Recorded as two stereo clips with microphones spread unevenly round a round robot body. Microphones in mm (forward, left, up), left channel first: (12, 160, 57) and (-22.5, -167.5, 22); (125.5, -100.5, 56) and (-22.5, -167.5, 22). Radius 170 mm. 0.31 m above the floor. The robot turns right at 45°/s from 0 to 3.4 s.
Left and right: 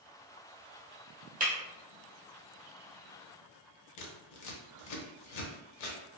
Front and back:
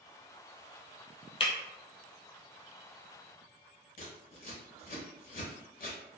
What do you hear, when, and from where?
1.4 s breaking glass: 30° right, 1.0 m; by 1.5 s 25° right, 1.0 m
4.0 s scissors: 55° left, 0.6 m